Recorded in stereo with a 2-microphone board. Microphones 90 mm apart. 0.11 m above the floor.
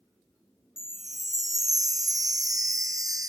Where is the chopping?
No chopping in this recording.